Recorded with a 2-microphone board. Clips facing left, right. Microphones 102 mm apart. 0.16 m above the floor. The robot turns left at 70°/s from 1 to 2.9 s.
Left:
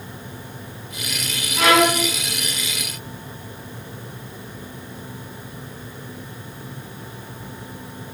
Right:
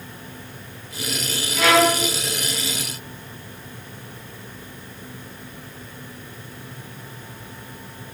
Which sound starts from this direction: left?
A violin, at 1.6 s.